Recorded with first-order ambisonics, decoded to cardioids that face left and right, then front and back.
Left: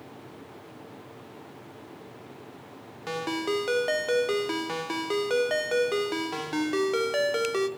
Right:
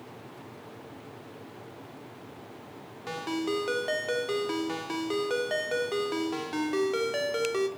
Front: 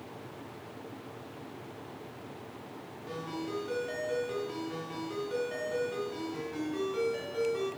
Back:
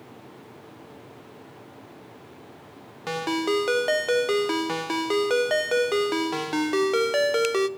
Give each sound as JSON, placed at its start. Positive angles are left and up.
{"t": 3.1, "sound": "a ringtone", "azimuth_deg": 170, "distance_m": 0.5}